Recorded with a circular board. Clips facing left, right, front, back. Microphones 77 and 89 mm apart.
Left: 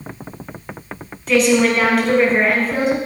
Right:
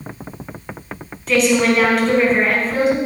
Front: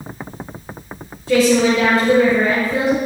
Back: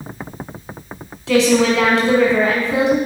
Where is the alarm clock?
I don't hear an alarm clock.